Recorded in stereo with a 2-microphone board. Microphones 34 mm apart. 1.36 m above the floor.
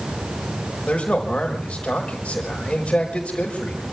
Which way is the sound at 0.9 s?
35° left (ahead or behind).